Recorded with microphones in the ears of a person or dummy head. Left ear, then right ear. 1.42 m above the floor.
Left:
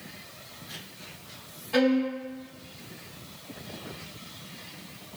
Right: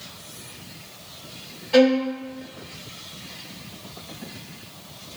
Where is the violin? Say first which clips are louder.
Right 7 dB; 5° right (ahead or behind), 1.7 m.